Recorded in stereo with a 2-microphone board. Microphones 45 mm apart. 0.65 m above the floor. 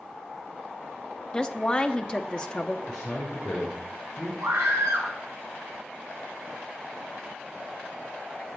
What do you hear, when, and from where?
1.3 s a woman speaking: 20° left (ahead or behind), 0.9 m
2.9 s a man speaking: 10° left (ahead or behind), 7 m
4.4 s a scream: 80° right, 7.5 m